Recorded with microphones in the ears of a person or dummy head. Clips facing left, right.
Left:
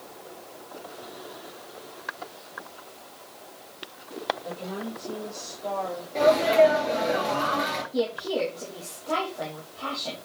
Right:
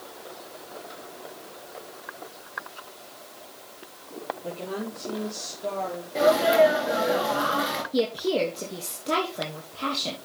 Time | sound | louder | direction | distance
4.4 | a woman speaking | right 1 dB | 50° right (ahead or behind) | 3.5 m
6.2 | a sneeze | even | 5° right (ahead or behind) | 4 m
7.9 | a woman speaking | right 3 dB | 35° right (ahead or behind) | 3 m